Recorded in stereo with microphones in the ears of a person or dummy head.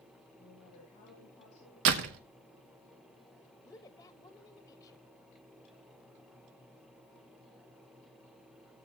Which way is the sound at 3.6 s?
20° left (ahead or behind).